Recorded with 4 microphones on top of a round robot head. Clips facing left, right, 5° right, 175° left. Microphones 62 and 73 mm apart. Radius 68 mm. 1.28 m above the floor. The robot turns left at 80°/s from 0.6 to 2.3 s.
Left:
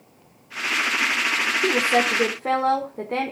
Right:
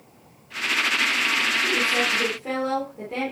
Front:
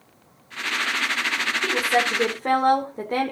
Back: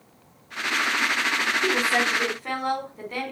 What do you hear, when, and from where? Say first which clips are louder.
1.6 s a woman speaking: left 3 dB, front 3 dB; 95° left, 4 m; by 3.3 s 40° left, 4 m